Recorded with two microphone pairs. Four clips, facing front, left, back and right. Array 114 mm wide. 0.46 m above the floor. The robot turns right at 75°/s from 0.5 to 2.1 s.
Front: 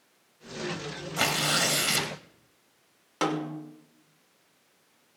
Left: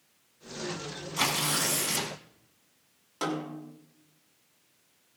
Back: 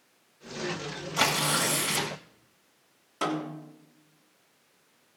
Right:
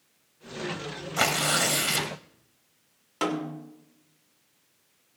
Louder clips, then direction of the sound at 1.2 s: Right 5 dB, back 1 dB; 105° right.